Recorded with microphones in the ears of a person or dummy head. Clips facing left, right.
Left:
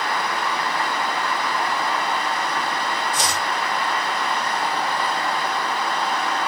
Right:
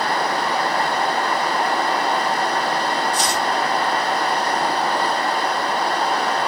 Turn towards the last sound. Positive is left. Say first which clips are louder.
# right 4 dB
turn(degrees=80)